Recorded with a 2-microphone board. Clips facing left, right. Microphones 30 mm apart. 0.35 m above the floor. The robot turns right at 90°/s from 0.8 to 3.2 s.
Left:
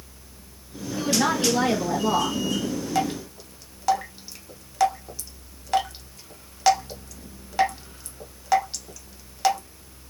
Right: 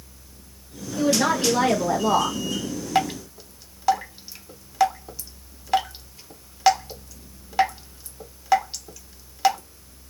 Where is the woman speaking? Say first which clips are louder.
Right 2 dB; 175° left, 1.2 m; by 2.4 s 60° right, 1.2 m.